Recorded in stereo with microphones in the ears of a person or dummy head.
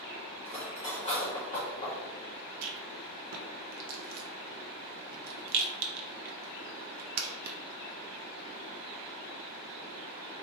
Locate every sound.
0.5 s cutlery clinking: 25° left (ahead or behind), 0.8 m
2.6 s a rattle: 50° right (ahead or behind), 0.5 m